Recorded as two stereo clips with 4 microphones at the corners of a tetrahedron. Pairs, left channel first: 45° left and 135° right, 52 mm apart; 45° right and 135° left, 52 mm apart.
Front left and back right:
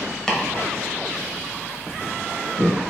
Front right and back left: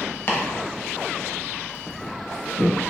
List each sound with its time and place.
0.3 s chopping: 25° right, 0.7 m